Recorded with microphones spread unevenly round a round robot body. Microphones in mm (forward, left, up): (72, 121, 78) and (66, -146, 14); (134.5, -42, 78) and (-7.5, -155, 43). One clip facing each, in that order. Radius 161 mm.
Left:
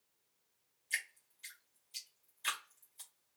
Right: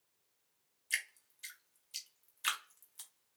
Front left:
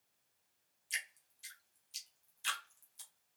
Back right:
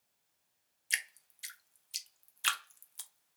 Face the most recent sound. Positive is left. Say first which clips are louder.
# even, back right 6 dB
turn(degrees=-165)